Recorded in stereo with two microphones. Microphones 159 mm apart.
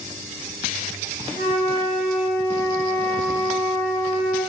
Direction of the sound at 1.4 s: 45° left (ahead or behind).